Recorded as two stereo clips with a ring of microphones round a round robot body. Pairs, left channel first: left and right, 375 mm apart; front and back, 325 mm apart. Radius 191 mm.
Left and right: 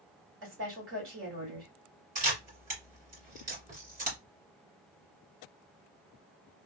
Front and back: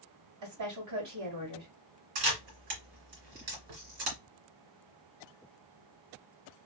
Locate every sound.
0.4 s a woman speaking: 145° right, 2 m
2.1 s a camera shutter: 160° right, 2 m